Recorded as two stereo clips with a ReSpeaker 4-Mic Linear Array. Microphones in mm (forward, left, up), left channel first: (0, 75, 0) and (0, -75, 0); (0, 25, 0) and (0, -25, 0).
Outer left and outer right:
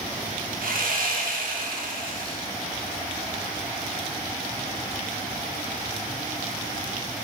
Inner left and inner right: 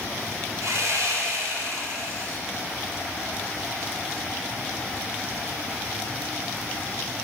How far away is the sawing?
About 1.1 m.